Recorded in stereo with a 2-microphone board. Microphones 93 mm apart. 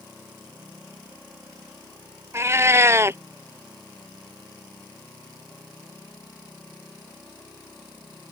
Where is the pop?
No pop in this recording.